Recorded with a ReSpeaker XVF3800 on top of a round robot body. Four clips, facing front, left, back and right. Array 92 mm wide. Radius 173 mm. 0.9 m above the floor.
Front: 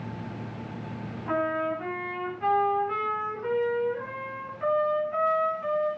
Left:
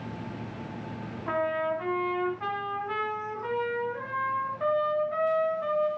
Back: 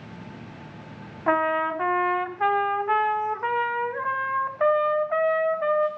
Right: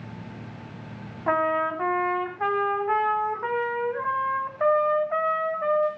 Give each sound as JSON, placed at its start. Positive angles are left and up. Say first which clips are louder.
{"t": 1.3, "sound": "a trumpet", "louder": "right 5 dB, back 5 dB", "azimuth_deg": -150, "distance_m": 1.1}